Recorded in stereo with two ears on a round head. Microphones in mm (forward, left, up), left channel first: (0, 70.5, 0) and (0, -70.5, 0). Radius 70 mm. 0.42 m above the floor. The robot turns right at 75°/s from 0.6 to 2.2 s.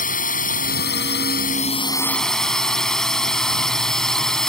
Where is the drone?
55° left; by 4.5 s 175° left.